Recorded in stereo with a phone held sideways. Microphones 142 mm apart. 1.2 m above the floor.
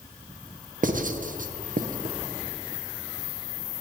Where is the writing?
70° right (ahead or behind), 0.5 m.